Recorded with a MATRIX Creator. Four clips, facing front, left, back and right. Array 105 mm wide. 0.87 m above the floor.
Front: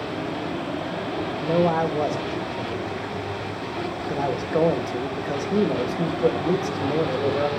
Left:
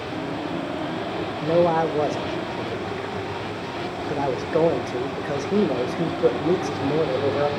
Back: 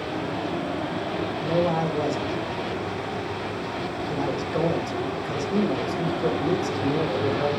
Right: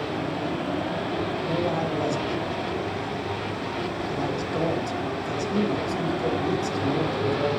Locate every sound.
1.4 s a man speaking: 55° left, 1.2 m